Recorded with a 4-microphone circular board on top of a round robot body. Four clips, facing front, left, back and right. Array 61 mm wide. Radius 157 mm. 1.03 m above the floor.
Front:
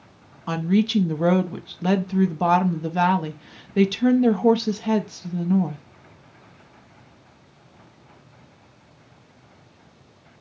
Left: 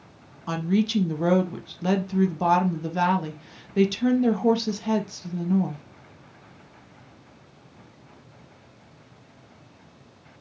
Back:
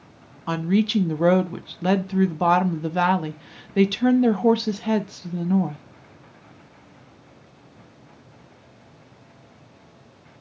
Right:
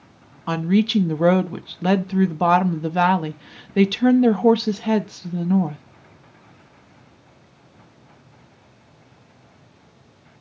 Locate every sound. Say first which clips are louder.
0.5 s a woman speaking: right 5 dB, even; 100° right, 0.6 m